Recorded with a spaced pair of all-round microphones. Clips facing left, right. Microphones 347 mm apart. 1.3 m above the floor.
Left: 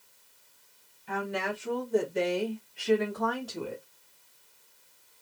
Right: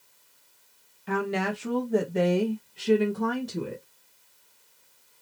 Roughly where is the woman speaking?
Right.